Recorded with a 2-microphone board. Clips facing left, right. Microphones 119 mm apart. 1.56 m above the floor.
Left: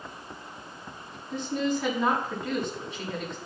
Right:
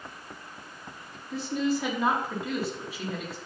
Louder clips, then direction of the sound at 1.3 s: Even; 5° right (ahead or behind).